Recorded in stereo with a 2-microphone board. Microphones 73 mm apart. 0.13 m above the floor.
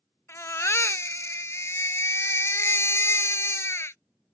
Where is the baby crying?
40° left (ahead or behind).